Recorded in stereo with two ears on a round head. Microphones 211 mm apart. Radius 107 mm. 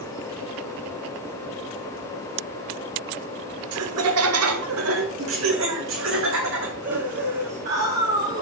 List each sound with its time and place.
3.7 s laughter: 65° right (ahead or behind), 1.4 m; by 8.4 s 45° right (ahead or behind), 3.5 m